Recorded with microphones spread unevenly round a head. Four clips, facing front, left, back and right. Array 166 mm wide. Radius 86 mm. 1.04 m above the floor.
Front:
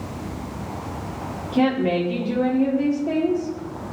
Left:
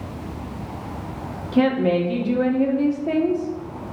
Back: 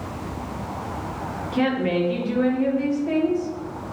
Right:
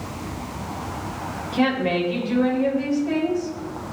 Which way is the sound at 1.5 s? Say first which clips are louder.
Left 3 dB, front 2 dB; 70° left.